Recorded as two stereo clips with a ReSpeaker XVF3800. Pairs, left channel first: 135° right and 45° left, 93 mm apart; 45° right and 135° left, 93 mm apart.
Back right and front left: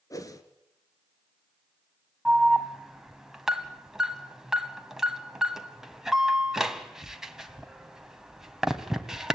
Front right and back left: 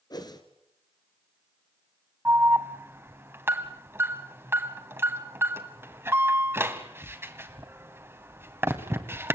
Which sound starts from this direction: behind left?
An alarm, at 2.2 s.